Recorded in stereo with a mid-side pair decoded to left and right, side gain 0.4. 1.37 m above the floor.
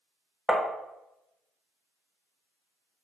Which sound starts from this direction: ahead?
Tapping, at 0.5 s.